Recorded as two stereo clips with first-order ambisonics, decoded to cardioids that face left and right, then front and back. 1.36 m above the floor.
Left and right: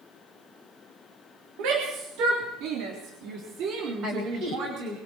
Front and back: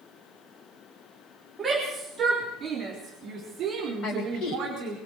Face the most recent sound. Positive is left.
turn(degrees=-40)